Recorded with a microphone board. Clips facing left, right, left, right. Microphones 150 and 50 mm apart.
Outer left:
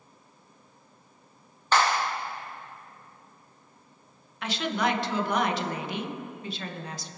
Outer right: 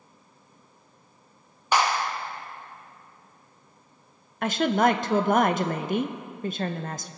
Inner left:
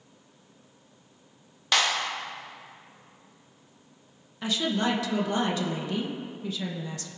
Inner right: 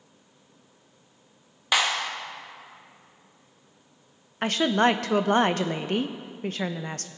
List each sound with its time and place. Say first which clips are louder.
1.7 s a clap: even, inner right 1 dB; 15° right (ahead or behind), 1.2 m
4.4 s a woman speaking: outer right 6 dB, inner right 6 dB; 50° right (ahead or behind), 0.8 m